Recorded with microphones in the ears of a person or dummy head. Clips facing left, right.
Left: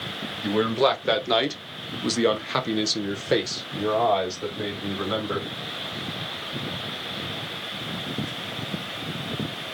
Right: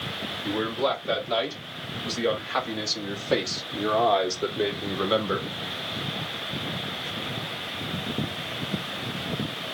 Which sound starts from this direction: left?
A man speaking, at 0.4 s.